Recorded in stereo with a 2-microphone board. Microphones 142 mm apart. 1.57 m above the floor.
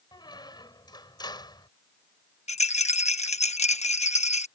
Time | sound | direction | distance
0.1 | a squeak | 30° left (ahead or behind) | ?
2.5 | a rattle | 55° left (ahead or behind) | ?